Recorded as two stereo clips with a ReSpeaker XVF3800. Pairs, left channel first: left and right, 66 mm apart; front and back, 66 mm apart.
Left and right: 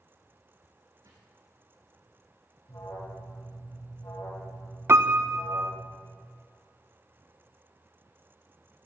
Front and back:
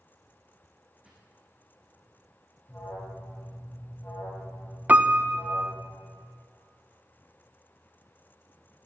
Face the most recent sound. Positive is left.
turn(degrees=-120)